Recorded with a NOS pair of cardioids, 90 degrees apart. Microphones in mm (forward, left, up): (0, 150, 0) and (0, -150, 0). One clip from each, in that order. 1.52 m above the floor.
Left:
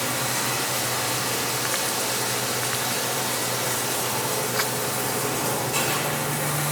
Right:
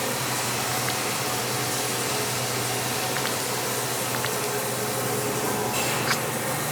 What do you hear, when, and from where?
0.0 s running water: 25° left, 1.2 m